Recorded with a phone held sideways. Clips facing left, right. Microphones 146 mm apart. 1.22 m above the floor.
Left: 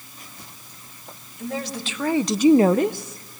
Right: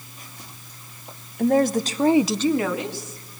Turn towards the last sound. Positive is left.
turn(degrees=70)  # may be behind; listen again after turning